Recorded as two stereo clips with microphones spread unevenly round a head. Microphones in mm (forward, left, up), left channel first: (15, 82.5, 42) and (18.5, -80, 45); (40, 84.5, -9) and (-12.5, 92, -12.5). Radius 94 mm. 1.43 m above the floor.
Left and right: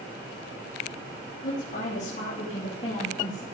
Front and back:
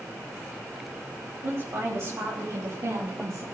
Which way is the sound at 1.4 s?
135° left.